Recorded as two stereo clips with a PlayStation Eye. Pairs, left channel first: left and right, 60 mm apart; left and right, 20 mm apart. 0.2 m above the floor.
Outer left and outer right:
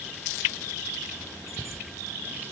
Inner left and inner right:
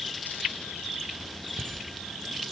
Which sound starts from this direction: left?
A bicycle bell, at 1.5 s.